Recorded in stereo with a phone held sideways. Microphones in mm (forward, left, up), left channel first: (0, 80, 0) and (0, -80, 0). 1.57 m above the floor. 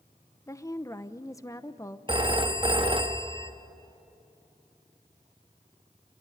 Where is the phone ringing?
30° right (ahead or behind), 1.2 m.